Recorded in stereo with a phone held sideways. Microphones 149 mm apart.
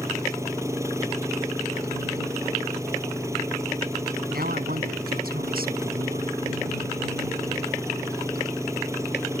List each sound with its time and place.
0.0 s an engine running: 20° right (ahead or behind)
4.3 s a man speaking: 85° right